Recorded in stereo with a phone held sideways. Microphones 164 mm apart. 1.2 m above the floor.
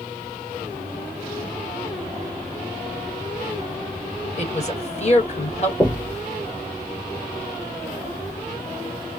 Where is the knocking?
10° left (ahead or behind), 0.8 m.